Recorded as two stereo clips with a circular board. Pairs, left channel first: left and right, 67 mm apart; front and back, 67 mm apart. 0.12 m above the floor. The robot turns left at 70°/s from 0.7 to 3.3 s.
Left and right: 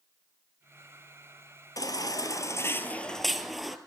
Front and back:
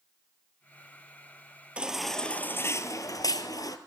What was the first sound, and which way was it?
A baby crying, 110° left.